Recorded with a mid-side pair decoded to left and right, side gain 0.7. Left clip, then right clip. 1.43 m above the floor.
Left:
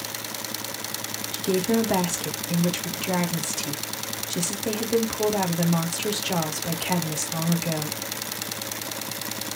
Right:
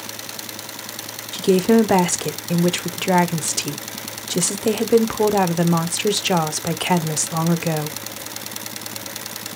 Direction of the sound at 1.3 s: 40° right.